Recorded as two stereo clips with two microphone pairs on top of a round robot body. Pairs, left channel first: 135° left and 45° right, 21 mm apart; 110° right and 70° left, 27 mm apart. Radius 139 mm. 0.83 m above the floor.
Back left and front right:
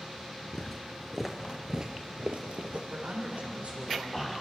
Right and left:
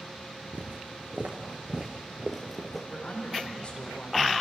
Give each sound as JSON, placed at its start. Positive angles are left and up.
{"t": 0.5, "sound": "footsteps", "azimuth_deg": 70, "distance_m": 0.9}
{"t": 2.9, "sound": "a woman speaking", "azimuth_deg": -60, "distance_m": 4.0}